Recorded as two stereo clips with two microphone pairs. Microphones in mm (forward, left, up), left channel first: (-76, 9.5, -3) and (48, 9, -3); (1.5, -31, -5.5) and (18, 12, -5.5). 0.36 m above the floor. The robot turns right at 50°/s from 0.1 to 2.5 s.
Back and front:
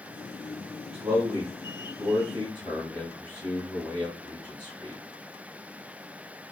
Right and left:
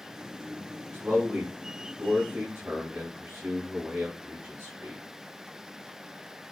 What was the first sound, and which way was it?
A man speaking, 30° left.